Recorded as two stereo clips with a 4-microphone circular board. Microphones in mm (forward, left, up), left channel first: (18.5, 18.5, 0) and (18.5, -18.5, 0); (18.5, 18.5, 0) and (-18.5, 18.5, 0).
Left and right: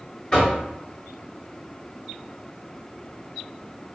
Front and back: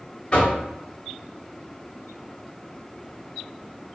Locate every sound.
0.3 s knocking: 40° left, 1.1 m